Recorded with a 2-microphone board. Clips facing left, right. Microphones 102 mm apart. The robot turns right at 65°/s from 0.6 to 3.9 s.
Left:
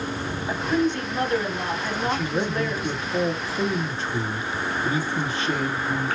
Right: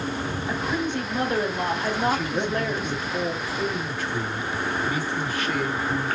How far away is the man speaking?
About 1.0 m.